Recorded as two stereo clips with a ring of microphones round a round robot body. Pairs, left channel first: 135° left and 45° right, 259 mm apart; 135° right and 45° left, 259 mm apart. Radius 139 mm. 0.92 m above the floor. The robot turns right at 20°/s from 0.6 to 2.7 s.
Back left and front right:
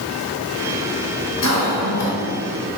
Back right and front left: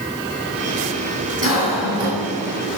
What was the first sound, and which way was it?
A cough, 105° left.